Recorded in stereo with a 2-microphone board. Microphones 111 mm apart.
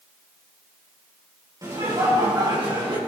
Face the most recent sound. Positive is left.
turn(degrees=-45)  # may be behind; listen again after turning